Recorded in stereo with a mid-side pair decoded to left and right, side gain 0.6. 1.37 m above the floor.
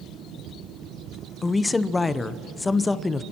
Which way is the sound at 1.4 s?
20° left.